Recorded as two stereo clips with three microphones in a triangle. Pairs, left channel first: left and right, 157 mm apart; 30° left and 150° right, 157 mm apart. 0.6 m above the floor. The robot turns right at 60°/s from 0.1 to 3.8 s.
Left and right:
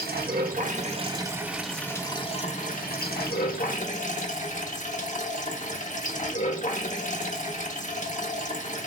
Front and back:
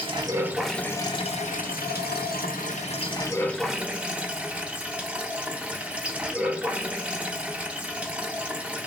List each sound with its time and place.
0.0 s running water: 95° right, 0.9 m; by 8.9 s 130° left, 0.9 m